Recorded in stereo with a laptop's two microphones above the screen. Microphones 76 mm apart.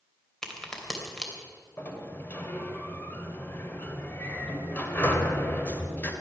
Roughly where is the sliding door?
Left.